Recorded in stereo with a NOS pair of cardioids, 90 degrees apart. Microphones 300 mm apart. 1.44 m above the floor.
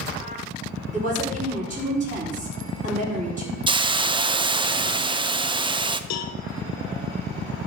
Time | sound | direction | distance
0.9 | a woman speaking | 25° right | 5 m
3.7 | a hiss | 15° right | 0.6 m
6.1 | a cowbell | 70° left | 1.0 m